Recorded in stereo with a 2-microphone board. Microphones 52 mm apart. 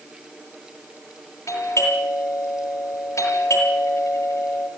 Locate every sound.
1.5 s a doorbell: 70° left (ahead or behind), 8.5 m